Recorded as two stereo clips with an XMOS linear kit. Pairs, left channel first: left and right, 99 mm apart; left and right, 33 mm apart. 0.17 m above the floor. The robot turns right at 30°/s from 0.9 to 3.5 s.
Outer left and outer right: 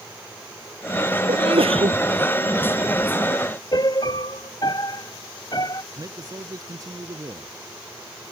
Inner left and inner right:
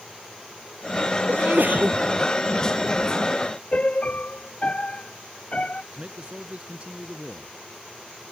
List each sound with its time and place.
1.3 s a sneeze: 75° right (ahead or behind); by 2.0 s 60° right (ahead or behind)
3.7 s a piano: 45° left (ahead or behind)
5.9 s a man speaking: 40° right (ahead or behind)